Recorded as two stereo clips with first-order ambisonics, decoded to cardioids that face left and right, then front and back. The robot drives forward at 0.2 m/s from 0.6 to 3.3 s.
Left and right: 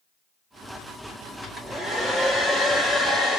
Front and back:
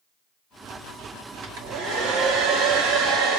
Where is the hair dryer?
175° right, 1.1 m.